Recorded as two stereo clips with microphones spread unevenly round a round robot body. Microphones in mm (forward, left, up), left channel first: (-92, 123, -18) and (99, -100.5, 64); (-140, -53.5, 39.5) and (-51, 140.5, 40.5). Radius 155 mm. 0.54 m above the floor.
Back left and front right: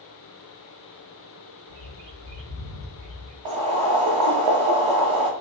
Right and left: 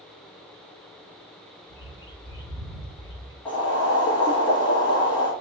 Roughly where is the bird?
Ahead right.